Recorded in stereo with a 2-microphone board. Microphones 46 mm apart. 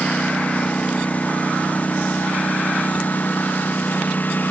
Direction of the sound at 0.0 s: 30° left (ahead or behind).